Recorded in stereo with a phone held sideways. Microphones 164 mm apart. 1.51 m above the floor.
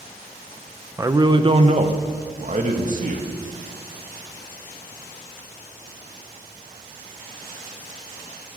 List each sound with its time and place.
1.0 s a man speaking: 15° right (ahead or behind), 0.9 m; by 3.3 s 55° right (ahead or behind), 2.5 m